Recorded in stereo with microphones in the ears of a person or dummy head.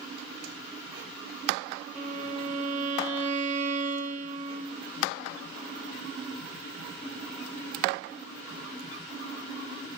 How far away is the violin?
About 0.5 m.